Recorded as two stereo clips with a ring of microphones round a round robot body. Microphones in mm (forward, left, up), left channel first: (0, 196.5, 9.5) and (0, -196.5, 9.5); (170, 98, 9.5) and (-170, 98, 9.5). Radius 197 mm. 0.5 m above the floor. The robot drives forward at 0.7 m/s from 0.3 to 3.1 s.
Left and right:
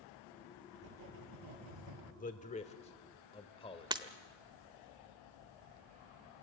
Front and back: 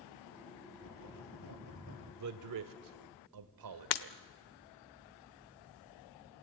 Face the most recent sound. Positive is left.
turn(degrees=-10)